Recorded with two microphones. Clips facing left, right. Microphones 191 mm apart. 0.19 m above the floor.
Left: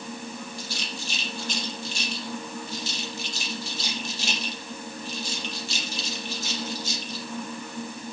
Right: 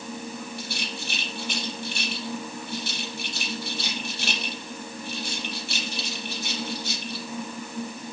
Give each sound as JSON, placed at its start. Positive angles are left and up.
{"t": 0.6, "sound": "a rattle", "side_deg": -65, "distance_m": 5.0}